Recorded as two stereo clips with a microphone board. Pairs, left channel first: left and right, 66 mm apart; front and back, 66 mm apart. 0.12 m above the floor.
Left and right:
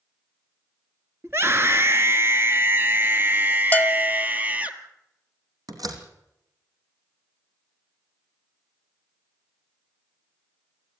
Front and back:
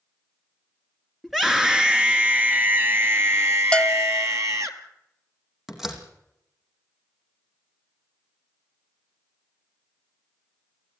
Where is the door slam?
95° right, 3.5 m.